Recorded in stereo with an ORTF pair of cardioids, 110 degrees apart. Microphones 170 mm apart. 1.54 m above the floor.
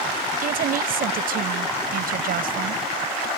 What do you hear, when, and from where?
0.4 s a woman speaking: 60° right